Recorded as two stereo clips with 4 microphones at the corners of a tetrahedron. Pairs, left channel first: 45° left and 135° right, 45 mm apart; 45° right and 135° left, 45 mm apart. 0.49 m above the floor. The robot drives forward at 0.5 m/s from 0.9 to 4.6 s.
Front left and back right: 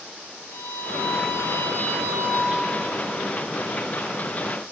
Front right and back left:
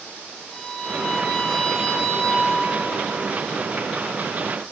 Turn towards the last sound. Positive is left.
turn(degrees=65)